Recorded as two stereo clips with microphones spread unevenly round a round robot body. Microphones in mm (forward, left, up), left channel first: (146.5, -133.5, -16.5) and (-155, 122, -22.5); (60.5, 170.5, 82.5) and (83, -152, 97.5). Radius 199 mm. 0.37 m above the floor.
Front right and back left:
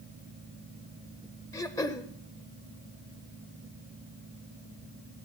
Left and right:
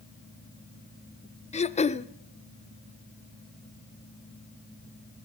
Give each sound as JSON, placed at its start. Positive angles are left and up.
{"t": 1.5, "sound": "throat clearing", "azimuth_deg": 40, "distance_m": 0.6}